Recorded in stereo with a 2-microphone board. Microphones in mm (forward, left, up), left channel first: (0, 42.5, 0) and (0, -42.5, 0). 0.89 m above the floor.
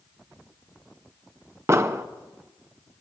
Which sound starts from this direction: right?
An explosion, at 1.7 s.